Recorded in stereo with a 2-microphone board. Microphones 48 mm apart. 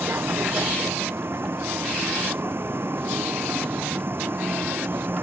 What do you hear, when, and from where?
0.0 s a vehicle: 50° right (ahead or behind); by 5.2 s 45° right (ahead or behind)